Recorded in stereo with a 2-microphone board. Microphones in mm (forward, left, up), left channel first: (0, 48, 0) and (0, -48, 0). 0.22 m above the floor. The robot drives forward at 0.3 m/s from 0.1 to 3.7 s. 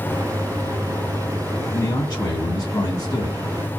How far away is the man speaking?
About 2 m.